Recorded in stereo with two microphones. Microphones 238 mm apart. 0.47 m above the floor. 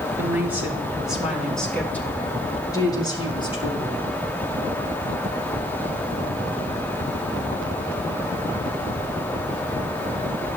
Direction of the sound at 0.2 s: 10° right (ahead or behind).